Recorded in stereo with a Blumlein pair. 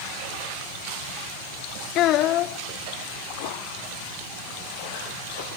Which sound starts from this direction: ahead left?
A child speaking, at 1.9 s.